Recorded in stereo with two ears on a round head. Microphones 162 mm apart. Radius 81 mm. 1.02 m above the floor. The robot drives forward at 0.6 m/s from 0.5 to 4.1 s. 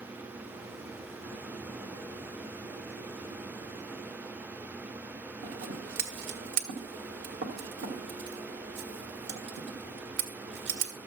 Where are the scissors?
70° right (ahead or behind), 1.5 m.